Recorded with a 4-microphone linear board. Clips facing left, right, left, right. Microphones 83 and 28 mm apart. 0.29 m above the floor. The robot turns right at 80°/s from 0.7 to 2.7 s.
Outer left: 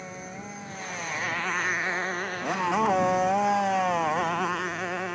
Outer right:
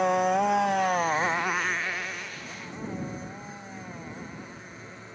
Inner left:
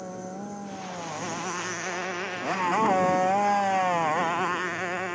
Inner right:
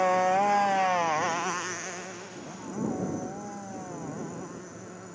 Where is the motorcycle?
75° right; by 5.2 s 85° left.